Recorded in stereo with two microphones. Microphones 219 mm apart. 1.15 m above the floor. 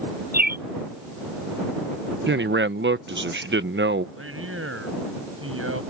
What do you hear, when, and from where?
0.3 s a bird: 45° right (ahead or behind)
2.3 s a man speaking: 60° right (ahead or behind)
4.2 s a man speaking: 85° right